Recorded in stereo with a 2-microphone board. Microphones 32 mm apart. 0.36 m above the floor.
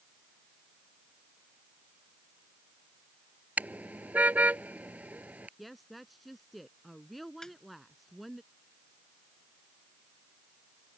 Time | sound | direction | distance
3.6 | a car horn | 60° right (ahead or behind) | ?
5.6 | a woman speaking | centre (ahead or behind) | ?
7.4 | a snare drum | 20° left (ahead or behind) | ?